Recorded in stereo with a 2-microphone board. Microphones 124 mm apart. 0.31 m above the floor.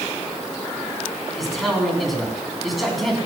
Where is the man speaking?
Centre (ahead or behind), 3 m.